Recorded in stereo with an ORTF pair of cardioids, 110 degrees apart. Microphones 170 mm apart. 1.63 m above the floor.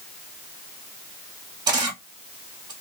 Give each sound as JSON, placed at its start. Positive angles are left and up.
{"t": 1.7, "sound": "a camera shutter", "azimuth_deg": -25, "distance_m": 1.0}